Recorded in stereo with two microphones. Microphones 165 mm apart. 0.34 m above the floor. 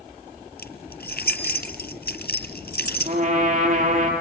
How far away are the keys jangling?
About 3 m.